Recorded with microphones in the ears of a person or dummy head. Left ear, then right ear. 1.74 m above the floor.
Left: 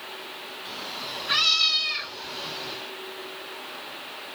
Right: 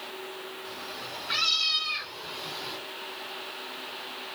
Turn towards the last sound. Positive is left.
turn(degrees=-10)  # may be behind; listen again after turning